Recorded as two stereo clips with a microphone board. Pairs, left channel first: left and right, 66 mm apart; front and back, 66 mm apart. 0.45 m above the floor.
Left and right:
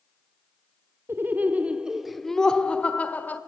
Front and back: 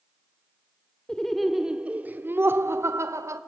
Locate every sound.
1.1 s laughter: 75° right, 1.0 m; by 3.4 s 150° left, 1.5 m